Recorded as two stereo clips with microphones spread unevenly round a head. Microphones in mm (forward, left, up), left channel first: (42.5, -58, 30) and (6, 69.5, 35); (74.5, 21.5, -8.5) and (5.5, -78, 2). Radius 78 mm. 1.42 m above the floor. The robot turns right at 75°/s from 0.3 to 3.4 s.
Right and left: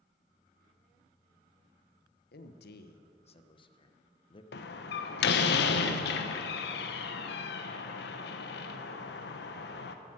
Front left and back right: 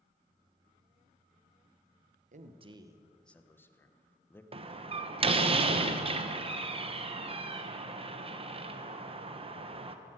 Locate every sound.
2.3 s a man speaking: 100° right, 1.0 m; by 4.4 s 20° right, 1.0 m
4.5 s a door slam: 80° right, 0.9 m